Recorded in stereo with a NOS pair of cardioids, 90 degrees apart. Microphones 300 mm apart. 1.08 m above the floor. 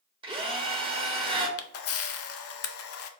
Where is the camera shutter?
50° left, 0.5 m.